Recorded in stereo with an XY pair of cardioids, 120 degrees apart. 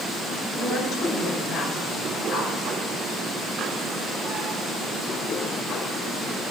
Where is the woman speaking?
65° left, 5.5 m.